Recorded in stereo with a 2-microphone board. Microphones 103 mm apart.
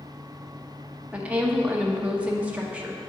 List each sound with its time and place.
1.1 s a woman speaking: 10° right (ahead or behind), 0.7 m